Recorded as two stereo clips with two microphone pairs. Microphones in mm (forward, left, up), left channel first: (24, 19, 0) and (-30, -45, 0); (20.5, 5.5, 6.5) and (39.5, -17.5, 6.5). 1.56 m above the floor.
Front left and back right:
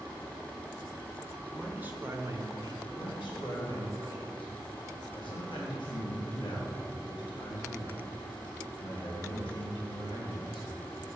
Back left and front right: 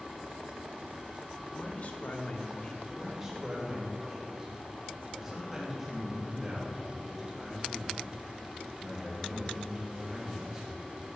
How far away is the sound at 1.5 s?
About 1.5 m.